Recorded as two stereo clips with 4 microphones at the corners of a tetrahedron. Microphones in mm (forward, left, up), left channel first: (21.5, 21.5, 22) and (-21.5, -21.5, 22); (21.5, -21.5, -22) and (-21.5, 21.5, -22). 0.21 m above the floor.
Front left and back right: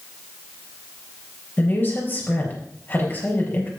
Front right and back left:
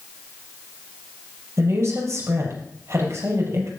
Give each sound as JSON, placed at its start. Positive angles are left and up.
{"t": 1.6, "sound": "a woman speaking", "azimuth_deg": 100, "distance_m": 4.5}